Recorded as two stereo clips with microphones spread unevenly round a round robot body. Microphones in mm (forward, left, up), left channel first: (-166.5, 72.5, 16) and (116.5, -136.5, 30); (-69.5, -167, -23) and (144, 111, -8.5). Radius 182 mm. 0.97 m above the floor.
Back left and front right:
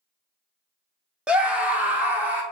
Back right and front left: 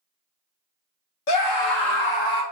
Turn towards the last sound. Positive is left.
turn(degrees=-125)